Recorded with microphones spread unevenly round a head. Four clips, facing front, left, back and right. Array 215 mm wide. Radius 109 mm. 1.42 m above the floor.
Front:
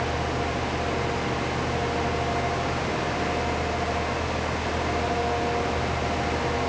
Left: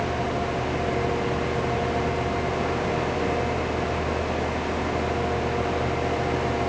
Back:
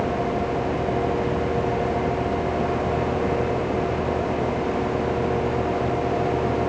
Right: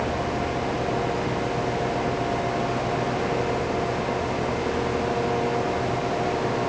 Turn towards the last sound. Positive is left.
No sound to turn to.